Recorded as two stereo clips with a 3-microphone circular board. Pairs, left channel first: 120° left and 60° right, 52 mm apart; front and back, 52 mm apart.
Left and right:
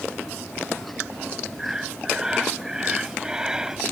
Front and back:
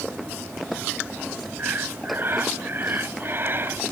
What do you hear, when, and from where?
1.6 s breathing: 140° right